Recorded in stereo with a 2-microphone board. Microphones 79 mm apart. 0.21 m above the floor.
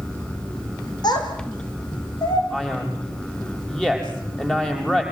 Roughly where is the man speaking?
Centre.